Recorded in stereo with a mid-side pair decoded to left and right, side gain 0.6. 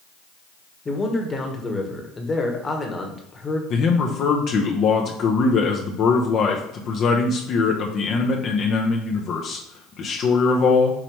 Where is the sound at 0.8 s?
25° left, 1.2 m.